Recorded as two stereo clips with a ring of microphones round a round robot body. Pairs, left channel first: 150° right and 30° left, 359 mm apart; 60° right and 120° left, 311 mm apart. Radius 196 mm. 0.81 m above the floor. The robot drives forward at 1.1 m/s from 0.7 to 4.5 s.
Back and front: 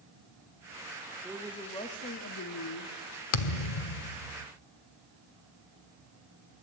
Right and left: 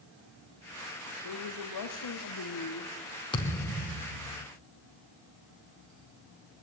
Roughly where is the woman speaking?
Ahead right.